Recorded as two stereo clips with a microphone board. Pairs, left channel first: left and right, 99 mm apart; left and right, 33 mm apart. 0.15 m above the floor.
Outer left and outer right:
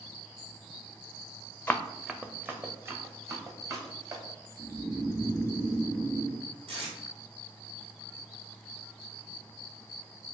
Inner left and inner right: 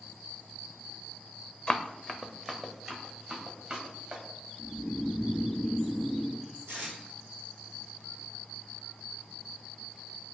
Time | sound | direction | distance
1.7 | running footsteps | 15° left (ahead or behind) | 0.5 m
4.6 | snoring | 10° right (ahead or behind) | 0.9 m
6.7 | tape being pulled | 65° right (ahead or behind) | 1.8 m